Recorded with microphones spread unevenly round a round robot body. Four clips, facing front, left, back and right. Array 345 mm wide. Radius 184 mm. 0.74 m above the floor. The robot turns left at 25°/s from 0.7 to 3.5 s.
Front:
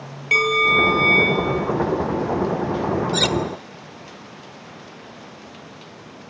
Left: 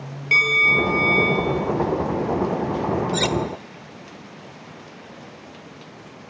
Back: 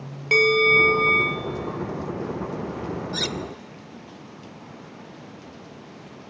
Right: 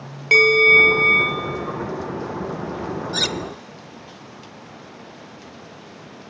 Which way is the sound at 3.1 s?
55° right.